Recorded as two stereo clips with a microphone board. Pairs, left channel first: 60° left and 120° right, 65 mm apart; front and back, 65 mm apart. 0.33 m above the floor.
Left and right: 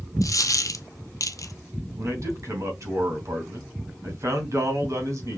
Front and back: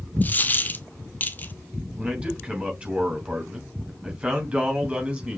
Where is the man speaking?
110° right, 2.5 m.